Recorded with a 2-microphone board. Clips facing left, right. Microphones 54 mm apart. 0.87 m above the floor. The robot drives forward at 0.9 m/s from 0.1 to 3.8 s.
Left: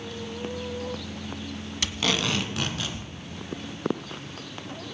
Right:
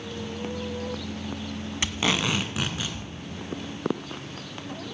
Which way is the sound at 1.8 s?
25° right (ahead or behind).